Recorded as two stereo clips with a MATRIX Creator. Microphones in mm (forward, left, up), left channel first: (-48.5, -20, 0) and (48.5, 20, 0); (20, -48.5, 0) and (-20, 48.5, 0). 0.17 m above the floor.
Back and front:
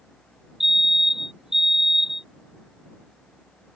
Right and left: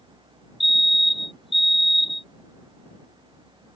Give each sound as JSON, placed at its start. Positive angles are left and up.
{"t": 0.6, "sound": "a fire alarm", "azimuth_deg": -65}